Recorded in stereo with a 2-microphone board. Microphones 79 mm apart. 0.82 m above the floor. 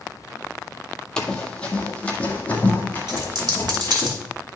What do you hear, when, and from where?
1.2 s running footsteps: 10° left (ahead or behind), 1.0 m; by 4.1 s 20° left (ahead or behind), 2.5 m
3.1 s a dropped coin: 70° right (ahead or behind), 1.7 m